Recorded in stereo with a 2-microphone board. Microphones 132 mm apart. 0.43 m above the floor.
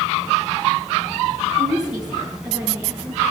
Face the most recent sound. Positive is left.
turn(degrees=-5)  # may be behind; listen again after turning